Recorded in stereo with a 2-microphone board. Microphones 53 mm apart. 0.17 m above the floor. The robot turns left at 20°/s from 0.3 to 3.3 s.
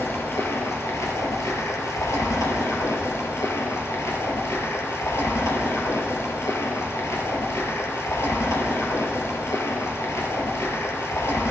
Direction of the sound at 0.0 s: 125° left.